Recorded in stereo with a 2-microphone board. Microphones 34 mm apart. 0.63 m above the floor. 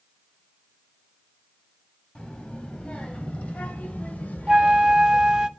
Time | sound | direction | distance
2.1 | a child speaking | 25° left (ahead or behind) | 3 m
4.5 | a flute | 25° right (ahead or behind) | 0.6 m